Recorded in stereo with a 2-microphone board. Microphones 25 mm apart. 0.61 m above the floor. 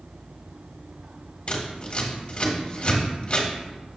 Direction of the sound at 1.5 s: 40° left (ahead or behind).